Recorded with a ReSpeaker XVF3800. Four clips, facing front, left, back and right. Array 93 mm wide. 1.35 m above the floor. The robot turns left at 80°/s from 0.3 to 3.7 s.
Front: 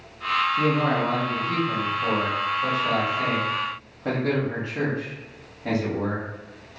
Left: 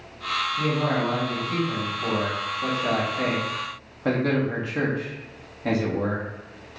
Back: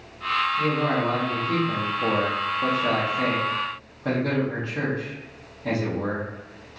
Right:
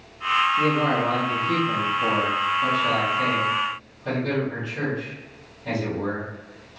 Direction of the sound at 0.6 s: 25° right.